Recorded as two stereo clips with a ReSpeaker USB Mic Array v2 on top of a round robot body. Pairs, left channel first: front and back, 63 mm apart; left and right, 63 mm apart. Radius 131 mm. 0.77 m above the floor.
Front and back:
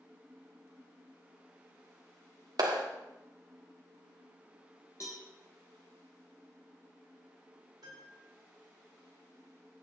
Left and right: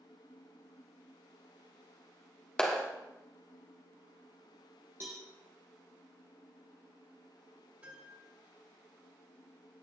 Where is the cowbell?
45° right, 0.6 m.